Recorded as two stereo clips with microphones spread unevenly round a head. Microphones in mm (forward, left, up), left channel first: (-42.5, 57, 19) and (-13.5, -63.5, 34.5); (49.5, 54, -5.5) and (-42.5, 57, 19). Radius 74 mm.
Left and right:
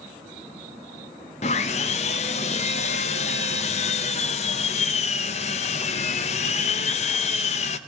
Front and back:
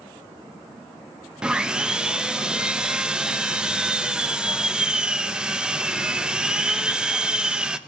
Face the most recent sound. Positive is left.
turn(degrees=115)